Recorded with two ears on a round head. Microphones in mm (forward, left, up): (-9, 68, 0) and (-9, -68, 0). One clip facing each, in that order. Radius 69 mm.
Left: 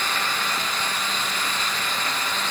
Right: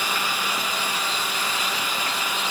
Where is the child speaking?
No child speaking in this recording.